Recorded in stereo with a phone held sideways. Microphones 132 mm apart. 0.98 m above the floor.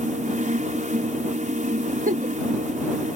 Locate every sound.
0.0 s a fan: 70° right (ahead or behind)
2.1 s a giggle: 75° right (ahead or behind)